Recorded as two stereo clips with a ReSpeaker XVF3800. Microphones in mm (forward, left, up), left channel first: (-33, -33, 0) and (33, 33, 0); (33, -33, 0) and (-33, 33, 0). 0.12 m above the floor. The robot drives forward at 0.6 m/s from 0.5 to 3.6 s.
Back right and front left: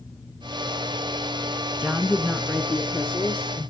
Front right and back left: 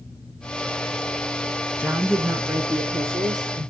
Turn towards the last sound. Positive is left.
turn(degrees=160)